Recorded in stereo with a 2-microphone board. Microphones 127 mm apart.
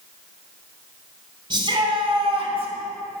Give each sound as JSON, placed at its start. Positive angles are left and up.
{"t": 1.5, "sound": "a shout", "side_deg": -35, "distance_m": 2.0}